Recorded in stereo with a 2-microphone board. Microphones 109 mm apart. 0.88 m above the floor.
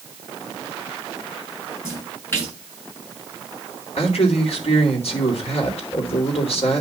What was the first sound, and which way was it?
A splash, 25° left (ahead or behind).